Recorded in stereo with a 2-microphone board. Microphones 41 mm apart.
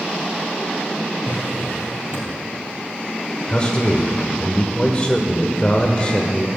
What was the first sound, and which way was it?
A drawer, 60° left (ahead or behind).